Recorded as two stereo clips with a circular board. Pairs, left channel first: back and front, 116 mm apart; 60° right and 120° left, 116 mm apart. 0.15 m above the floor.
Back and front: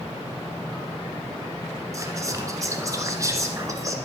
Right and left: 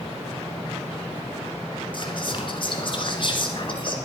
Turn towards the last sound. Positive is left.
turn(degrees=-50)